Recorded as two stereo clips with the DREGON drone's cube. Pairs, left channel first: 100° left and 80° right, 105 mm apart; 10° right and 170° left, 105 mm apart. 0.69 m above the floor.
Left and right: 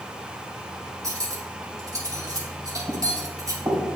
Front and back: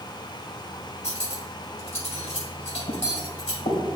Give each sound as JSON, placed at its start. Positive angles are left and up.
{"t": 1.0, "sound": "cutlery clinking", "azimuth_deg": -20, "distance_m": 2.0}